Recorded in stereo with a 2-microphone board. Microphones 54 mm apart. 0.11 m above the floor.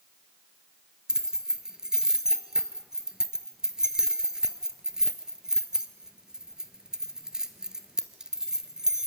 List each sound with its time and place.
1.1 s keys jangling: 10° right (ahead or behind), 1.3 m